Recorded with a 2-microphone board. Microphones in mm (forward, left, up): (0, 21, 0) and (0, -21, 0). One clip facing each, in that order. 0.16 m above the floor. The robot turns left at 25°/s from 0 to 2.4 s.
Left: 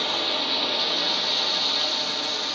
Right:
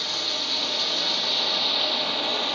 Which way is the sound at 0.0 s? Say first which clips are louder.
Left 3 dB; 35° left.